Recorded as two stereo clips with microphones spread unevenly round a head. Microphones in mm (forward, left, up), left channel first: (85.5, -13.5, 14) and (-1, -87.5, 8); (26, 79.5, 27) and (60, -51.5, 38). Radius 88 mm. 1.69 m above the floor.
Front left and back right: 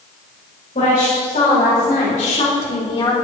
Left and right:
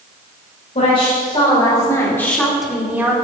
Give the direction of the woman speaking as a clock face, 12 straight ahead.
10 o'clock.